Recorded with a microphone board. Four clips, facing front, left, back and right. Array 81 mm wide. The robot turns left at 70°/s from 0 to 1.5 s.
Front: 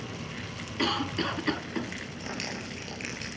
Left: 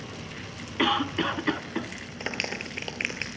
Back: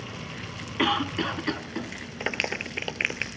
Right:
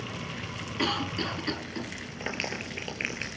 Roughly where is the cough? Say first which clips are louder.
Left 5 dB, back 4 dB; behind left.